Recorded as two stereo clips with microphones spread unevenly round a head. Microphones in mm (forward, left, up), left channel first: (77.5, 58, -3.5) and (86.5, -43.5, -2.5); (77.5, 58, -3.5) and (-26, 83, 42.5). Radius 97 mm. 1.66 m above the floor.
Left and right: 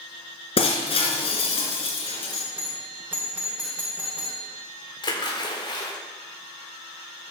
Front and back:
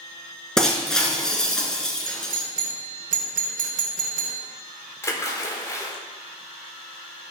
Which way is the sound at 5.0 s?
55° left.